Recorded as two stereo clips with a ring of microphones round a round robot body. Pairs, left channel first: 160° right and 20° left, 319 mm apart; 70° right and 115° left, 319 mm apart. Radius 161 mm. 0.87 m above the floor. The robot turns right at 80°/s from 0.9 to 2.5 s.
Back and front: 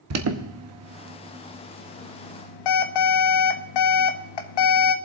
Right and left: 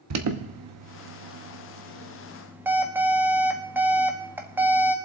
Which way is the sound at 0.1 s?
70° left.